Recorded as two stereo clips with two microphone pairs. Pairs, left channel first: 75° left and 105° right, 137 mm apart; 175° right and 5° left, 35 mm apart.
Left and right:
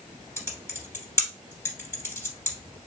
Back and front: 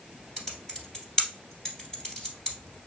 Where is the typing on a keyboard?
135° left, 1.7 m.